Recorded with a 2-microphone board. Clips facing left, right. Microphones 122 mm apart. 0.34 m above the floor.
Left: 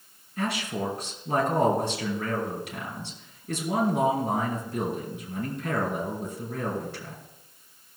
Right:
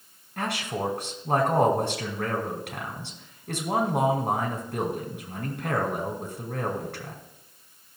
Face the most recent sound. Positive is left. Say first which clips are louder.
# even
turn(degrees=-65)  # may be behind; listen again after turning